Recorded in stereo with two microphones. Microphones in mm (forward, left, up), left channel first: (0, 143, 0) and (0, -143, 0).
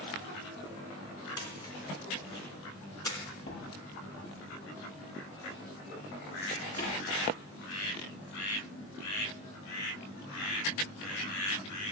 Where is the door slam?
55° left (ahead or behind), 7 m.